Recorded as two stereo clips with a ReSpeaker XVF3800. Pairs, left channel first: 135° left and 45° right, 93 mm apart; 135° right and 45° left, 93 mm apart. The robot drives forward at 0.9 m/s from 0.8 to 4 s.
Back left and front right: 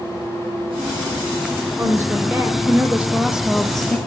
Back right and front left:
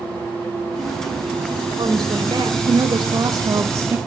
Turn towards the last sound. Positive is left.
turn(degrees=75)